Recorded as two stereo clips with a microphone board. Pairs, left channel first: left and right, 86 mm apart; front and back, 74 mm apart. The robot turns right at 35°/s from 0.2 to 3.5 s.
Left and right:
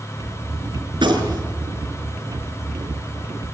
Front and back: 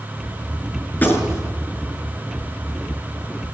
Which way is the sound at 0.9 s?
70° right.